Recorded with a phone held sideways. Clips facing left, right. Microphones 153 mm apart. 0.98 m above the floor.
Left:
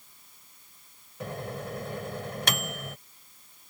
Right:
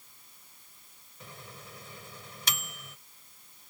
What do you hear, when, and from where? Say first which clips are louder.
1.2 s a microwave: left 14 dB; 70° left (ahead or behind)